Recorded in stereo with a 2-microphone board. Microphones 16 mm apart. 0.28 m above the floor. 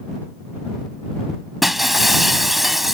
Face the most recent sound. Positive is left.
turn(degrees=-10)  # may be behind; listen again after turning